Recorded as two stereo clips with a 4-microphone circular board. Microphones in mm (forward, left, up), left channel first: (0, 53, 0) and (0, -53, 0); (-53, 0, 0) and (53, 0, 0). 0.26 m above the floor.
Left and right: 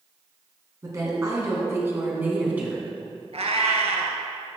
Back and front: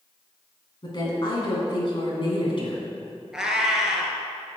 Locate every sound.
0.8 s a woman speaking: 145° right, 3 m; by 2.8 s 165° right, 2.5 m
3.3 s a cat meowing: 85° right, 1.3 m